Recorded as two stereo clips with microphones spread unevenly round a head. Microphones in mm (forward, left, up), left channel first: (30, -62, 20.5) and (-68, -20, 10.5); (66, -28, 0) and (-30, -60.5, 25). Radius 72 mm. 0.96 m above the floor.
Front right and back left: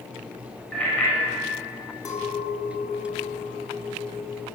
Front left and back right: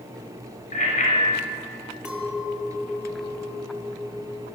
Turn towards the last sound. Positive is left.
turn(degrees=-80)